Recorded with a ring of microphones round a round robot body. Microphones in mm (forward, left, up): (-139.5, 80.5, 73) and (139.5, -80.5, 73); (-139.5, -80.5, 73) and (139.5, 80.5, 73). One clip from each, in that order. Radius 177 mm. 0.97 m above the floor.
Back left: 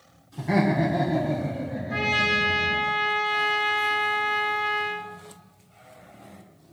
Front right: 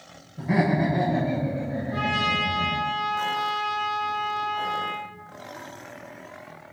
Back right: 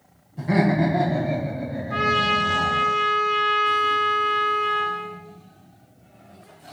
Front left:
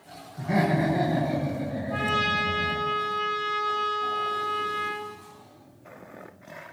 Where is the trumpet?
145° left, 0.9 m.